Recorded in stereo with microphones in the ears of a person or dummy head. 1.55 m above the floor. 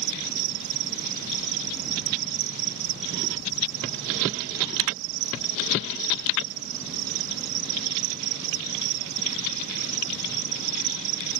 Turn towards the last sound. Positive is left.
turn(degrees=-60)  # may be behind; listen again after turning